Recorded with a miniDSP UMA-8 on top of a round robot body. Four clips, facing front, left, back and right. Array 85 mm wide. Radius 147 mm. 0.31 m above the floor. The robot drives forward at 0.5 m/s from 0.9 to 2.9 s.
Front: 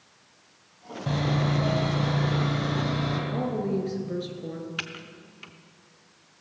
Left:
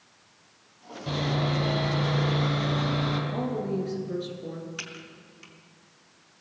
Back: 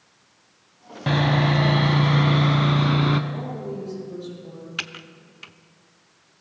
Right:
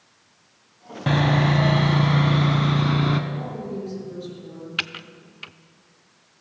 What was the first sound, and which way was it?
Sawing, 130° right.